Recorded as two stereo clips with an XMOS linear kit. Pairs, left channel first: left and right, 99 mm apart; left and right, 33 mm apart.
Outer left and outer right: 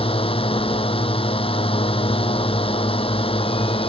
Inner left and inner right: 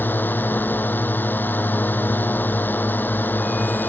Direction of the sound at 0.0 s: 70° left (ahead or behind).